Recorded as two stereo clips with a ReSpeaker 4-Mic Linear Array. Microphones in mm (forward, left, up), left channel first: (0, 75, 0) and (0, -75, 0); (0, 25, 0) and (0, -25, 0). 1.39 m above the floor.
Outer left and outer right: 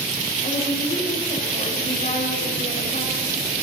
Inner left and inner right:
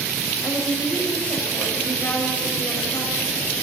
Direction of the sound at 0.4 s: 55° left (ahead or behind).